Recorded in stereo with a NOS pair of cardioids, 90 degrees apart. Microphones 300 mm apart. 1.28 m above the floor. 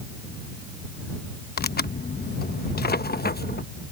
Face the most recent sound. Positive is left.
turn(degrees=30)